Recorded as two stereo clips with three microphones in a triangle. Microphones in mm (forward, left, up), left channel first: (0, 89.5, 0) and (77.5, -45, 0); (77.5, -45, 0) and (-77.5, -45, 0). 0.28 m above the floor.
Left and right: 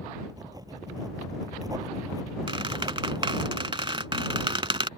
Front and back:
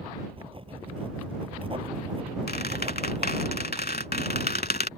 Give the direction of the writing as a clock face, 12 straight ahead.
4 o'clock.